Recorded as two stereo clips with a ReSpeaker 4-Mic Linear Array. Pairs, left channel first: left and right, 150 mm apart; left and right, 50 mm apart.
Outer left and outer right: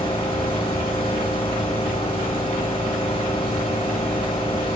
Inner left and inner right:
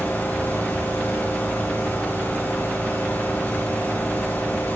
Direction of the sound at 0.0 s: 35° left (ahead or behind).